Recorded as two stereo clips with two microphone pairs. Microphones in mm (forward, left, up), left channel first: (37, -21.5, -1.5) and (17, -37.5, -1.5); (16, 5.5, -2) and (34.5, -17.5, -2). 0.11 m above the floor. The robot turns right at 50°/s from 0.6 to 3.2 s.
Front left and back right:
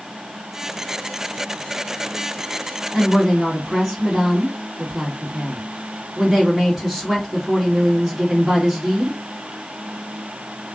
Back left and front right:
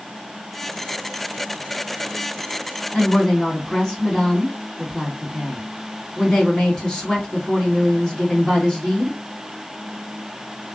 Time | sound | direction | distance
2.9 | a woman speaking | 160° left | 1.8 m